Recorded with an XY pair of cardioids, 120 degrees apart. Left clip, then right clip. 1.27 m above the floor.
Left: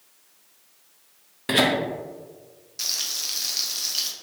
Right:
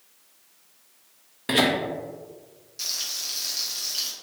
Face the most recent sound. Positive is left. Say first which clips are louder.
# left 2 dB
turn(degrees=25)